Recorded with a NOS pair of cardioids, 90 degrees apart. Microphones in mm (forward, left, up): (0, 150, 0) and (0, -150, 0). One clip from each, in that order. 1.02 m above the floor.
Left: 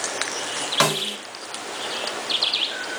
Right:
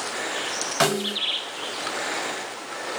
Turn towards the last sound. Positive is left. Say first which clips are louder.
# left 1 dB
turn(degrees=25)